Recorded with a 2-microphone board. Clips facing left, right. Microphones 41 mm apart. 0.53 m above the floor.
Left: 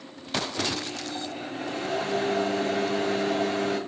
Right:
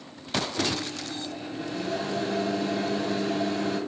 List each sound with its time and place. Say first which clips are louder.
0.6 s a microwave: right 1 dB; 50° left (ahead or behind), 3 m